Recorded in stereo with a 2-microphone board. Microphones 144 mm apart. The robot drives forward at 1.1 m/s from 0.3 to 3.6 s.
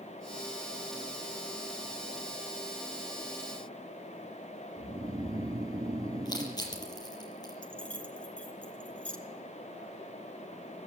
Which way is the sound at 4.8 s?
25° right (ahead or behind).